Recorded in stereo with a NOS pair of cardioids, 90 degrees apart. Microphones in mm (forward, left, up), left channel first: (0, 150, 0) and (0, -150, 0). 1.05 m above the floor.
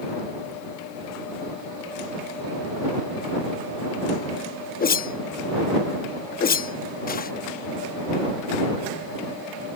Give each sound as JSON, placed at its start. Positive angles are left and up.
{"t": 4.8, "sound": "a whoosh", "azimuth_deg": 30}